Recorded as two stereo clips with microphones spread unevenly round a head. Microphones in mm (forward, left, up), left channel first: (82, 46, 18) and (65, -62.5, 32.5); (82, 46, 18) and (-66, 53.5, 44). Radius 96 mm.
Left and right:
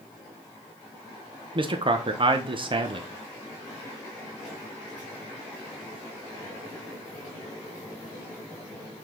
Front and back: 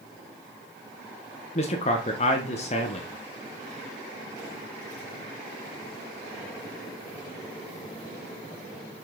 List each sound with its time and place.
1.6 s a man speaking: 55° right, 1.1 m